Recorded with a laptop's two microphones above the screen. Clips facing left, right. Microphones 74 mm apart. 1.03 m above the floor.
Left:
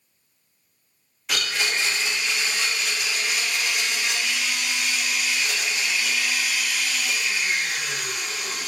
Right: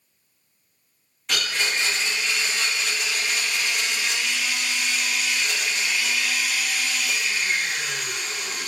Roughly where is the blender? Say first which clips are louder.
Even; centre.